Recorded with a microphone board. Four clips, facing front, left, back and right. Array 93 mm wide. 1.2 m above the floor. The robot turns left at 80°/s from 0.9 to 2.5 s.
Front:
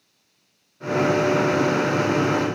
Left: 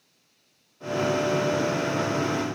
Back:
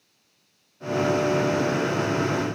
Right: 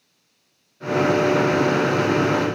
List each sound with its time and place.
Only background noise.